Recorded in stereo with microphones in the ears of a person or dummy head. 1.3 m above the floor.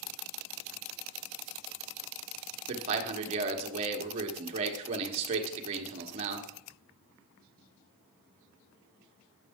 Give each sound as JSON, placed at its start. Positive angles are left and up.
{"t": 2.7, "sound": "a man speaking", "side_deg": -35, "distance_m": 1.3}